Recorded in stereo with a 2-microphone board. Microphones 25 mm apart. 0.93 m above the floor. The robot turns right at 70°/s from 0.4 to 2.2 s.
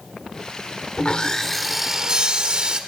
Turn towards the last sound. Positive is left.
turn(degrees=-140)